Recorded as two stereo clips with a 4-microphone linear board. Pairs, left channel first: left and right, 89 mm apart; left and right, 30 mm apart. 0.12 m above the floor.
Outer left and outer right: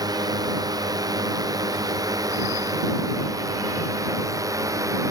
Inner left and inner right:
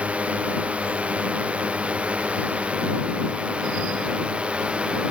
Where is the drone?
45° right (ahead or behind); by 5.1 s 35° right (ahead or behind).